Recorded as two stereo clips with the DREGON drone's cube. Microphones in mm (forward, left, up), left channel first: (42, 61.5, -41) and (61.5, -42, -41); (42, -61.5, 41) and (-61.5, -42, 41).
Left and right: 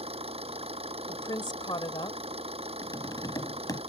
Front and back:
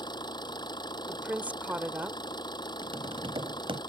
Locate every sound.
0.0 s an engine running: 60° right
1.1 s a woman speaking: 100° left
2.8 s tapping: 150° left